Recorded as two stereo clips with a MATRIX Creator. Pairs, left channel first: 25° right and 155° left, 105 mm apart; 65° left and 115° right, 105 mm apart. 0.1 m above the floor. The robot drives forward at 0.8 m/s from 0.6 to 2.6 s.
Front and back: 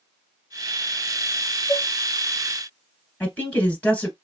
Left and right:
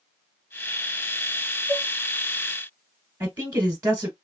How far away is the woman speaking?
About 1.4 m.